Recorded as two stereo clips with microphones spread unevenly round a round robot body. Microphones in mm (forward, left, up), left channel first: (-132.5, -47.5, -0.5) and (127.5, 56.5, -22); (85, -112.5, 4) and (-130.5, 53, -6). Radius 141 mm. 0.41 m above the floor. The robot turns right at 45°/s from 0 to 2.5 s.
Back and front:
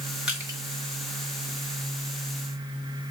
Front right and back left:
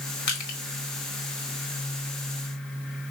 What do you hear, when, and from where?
0.3 s crushing: 65° right, 1.2 m; by 0.6 s 50° right, 1.2 m